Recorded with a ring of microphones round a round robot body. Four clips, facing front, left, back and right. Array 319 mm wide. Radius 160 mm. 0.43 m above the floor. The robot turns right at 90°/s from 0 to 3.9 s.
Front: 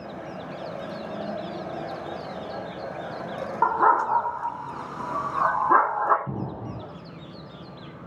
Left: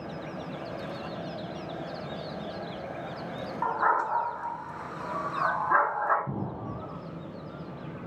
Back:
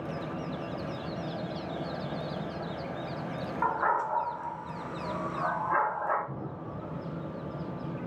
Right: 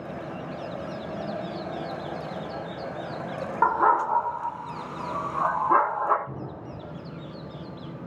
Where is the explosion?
25° left, 2.5 m.